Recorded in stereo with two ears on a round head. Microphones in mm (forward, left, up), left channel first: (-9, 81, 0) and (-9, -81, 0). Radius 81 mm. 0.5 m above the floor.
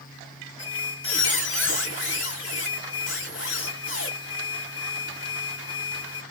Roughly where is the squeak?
Left.